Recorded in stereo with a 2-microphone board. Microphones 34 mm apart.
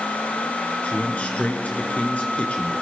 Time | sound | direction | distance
0.8 | a man speaking | 40° left (ahead or behind) | 3 m